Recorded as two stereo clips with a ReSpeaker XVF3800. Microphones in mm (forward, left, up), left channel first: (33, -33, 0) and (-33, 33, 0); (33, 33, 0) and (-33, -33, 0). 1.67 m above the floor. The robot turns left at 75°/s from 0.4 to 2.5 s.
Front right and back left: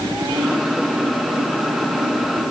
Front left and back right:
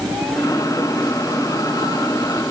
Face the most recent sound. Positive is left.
No sound to turn to.